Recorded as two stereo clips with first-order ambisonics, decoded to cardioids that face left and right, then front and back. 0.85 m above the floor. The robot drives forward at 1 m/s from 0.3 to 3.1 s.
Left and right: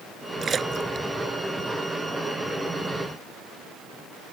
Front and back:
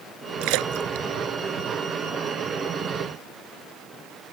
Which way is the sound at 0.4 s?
160° right.